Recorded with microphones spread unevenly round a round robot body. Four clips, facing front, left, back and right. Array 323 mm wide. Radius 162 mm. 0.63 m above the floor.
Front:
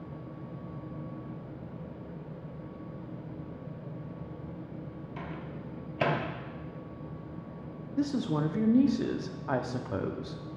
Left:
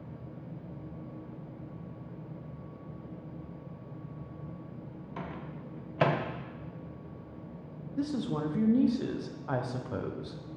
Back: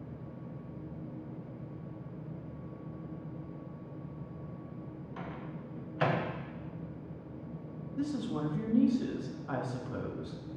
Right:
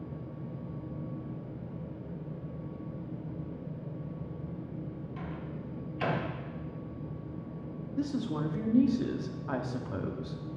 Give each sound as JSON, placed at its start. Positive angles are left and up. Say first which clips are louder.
{"t": 5.2, "sound": "a microwave", "louder": "left 3 dB, front 2 dB", "azimuth_deg": 60, "distance_m": 1.3}
{"t": 8.0, "sound": "a woman speaking", "louder": "left 1 dB, front 5 dB", "azimuth_deg": 10, "distance_m": 1.0}